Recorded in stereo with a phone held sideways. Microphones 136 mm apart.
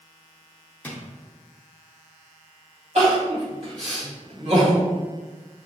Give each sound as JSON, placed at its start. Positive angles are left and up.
{"t": 0.8, "sound": "a drawer", "side_deg": 15, "distance_m": 0.7}
{"t": 3.0, "sound": "crying", "side_deg": -50, "distance_m": 1.8}